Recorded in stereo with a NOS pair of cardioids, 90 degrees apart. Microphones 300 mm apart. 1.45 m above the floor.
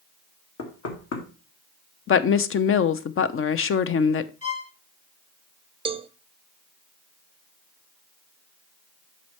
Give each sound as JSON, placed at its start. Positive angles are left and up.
{"t": 0.6, "sound": "knocking", "azimuth_deg": 55, "distance_m": 2.0}
{"t": 2.1, "sound": "a woman speaking", "azimuth_deg": 45, "distance_m": 0.7}
{"t": 4.4, "sound": "a violin", "azimuth_deg": 25, "distance_m": 1.4}
{"t": 5.8, "sound": "a cowbell", "azimuth_deg": -20, "distance_m": 0.6}